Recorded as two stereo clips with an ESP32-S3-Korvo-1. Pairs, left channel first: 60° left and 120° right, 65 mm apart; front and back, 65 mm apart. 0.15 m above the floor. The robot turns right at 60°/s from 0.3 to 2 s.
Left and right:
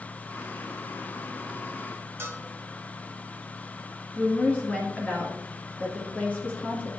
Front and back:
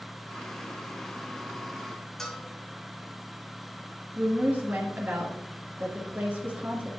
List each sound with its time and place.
2.2 s a bell: 80° right, 1.8 m
4.2 s a woman speaking: 120° left, 2.5 m